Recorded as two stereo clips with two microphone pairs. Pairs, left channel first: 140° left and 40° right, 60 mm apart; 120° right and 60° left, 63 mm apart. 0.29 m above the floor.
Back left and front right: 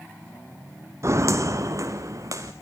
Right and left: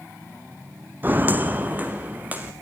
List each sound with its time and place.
1.0 s footsteps: straight ahead, 0.9 m; by 2.5 s 10° right, 2 m